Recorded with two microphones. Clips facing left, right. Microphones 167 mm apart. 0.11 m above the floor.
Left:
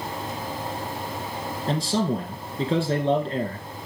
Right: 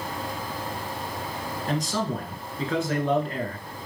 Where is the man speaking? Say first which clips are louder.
Left 4 dB; 30° left (ahead or behind), 1.3 m.